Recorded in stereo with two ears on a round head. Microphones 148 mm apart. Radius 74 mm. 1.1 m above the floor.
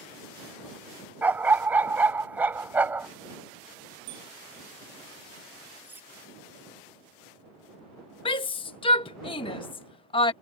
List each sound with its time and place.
1.2 s a dog barking: 10° right (ahead or behind)
4.1 s a bicycle bell: 85° right
5.8 s cutlery clinking: 10° right (ahead or behind)
8.2 s a shout: 30° left (ahead or behind)